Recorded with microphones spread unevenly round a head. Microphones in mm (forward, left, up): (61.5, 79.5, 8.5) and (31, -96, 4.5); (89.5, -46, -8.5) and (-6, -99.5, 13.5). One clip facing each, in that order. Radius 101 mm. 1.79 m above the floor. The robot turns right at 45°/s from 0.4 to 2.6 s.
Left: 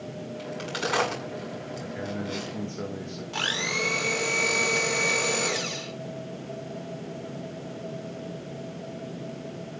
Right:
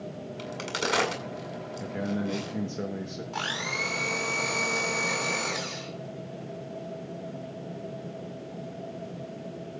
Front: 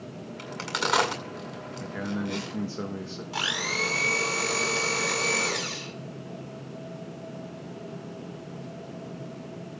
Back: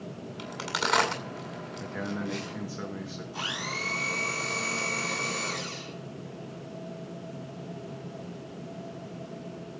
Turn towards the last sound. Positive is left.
turn(degrees=25)